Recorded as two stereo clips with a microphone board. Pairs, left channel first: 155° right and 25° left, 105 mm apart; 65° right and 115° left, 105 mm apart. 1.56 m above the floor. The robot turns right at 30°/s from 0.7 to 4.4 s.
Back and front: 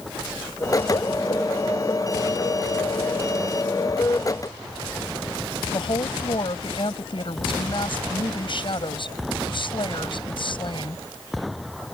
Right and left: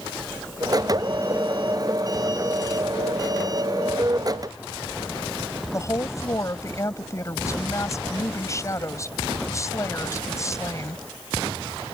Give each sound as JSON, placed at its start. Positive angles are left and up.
{"t": 5.7, "sound": "a woman speaking", "azimuth_deg": -125}